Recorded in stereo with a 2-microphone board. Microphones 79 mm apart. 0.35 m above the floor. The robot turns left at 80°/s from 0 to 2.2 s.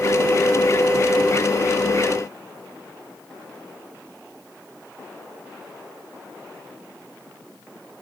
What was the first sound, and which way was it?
Only background noise.